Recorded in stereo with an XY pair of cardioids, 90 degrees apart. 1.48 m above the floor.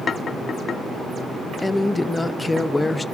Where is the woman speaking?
20° left, 0.6 m.